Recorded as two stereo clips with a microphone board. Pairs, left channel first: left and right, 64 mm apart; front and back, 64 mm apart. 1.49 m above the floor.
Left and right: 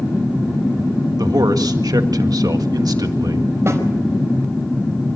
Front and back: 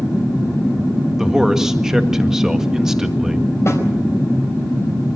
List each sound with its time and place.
1.2 s a man speaking: 100° right, 1.7 m
3.7 s a snare drum: 45° right, 5 m